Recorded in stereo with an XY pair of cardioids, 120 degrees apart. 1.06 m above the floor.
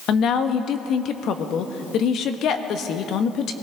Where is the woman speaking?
60° left, 1.2 m.